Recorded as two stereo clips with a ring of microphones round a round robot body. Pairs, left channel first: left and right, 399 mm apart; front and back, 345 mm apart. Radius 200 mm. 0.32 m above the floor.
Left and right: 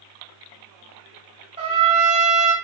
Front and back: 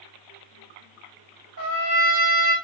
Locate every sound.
1.6 s a trumpet: 160° right, 1.1 m